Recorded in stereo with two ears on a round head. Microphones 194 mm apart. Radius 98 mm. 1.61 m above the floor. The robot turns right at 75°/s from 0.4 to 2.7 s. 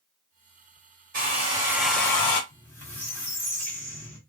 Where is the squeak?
Centre (ahead or behind), 1.3 m; by 4.2 s 10° left (ahead or behind), 1.3 m.